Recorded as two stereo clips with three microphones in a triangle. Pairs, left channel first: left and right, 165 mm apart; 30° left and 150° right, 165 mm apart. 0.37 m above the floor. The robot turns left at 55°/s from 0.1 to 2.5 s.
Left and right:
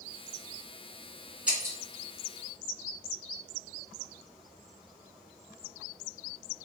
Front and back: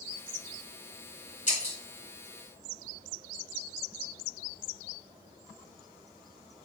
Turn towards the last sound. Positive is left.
turn(degrees=-65)